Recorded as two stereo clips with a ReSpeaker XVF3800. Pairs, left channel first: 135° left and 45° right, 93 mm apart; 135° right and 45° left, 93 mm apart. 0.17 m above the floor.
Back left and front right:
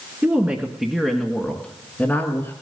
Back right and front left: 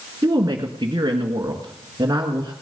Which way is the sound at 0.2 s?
15° left.